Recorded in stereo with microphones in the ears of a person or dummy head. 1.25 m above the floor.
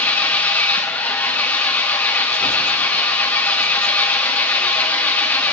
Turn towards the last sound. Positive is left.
turn(degrees=10)  # may be behind; listen again after turning